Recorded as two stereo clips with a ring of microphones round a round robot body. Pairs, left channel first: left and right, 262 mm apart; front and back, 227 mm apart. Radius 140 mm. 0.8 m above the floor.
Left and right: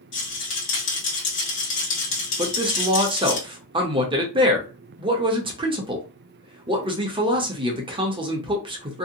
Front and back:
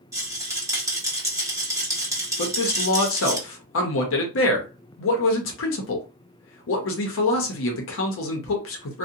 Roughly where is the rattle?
Left.